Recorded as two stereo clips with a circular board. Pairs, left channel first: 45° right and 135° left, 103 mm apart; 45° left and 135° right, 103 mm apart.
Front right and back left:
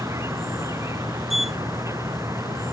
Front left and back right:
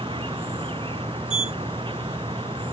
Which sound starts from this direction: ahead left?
A sliding door, at 1.3 s.